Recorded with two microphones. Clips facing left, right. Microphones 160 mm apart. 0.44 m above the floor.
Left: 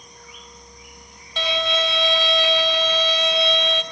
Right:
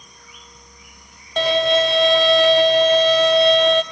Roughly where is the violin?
Right.